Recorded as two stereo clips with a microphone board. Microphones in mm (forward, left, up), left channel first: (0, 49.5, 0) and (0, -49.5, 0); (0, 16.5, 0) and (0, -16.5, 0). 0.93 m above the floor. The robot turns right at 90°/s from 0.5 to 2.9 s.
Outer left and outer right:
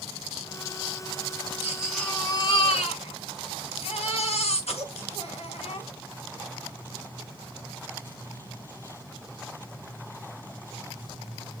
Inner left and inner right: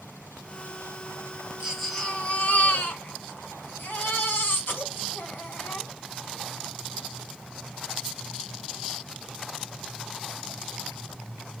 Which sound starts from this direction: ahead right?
A baby crying, at 1.6 s.